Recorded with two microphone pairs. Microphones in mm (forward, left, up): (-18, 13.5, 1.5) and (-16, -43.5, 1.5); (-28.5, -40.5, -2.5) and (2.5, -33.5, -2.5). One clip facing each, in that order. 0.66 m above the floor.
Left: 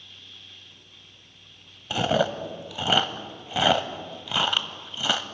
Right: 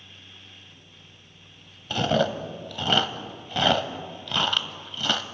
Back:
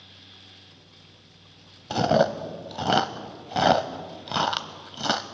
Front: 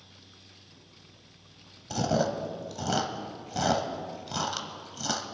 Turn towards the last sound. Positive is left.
turn(degrees=175)